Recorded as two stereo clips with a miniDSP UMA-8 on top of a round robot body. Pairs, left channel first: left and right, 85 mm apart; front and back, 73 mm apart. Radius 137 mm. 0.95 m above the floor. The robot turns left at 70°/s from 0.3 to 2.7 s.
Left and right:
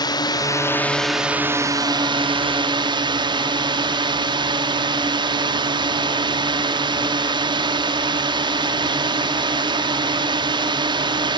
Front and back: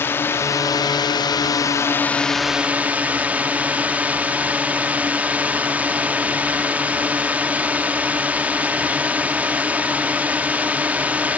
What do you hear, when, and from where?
0.0 s a drone: 55° left; by 11.4 s 110° right